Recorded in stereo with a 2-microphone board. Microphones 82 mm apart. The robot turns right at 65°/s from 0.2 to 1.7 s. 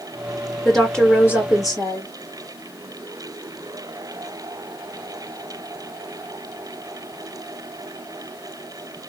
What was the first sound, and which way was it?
A woman speaking, 5° right.